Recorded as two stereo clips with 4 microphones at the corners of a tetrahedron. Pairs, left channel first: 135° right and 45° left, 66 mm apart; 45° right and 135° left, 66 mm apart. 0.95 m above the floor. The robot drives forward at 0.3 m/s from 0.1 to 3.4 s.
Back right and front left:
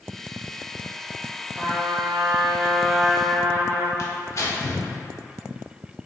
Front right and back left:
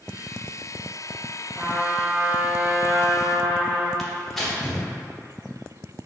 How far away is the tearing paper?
About 0.7 m.